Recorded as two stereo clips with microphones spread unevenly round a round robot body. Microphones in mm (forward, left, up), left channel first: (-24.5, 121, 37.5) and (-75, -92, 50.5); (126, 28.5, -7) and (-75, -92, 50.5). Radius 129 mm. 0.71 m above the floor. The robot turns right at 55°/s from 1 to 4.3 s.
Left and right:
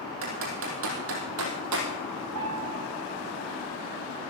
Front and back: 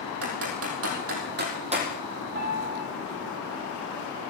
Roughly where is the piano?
Right.